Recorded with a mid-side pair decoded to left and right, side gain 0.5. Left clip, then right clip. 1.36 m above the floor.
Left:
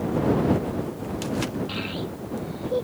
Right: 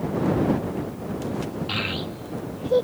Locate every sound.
1.7 s a child speaking: 40° right